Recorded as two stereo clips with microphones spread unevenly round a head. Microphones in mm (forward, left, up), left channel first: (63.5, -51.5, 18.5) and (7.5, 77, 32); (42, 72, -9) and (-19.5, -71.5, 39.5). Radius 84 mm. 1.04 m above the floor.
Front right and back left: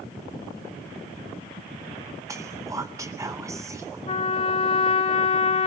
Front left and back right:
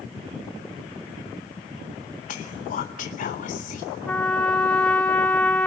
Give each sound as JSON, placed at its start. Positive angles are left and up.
{"t": 2.3, "sound": "whispering", "azimuth_deg": 45, "distance_m": 0.8}
{"t": 4.1, "sound": "a trumpet", "azimuth_deg": -25, "distance_m": 1.1}